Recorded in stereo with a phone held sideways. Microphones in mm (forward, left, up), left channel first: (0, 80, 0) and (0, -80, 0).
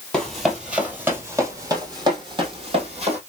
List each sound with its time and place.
0.1 s running footsteps: 5° left (ahead or behind), 1.8 m; by 3.2 s 40° right (ahead or behind), 2.5 m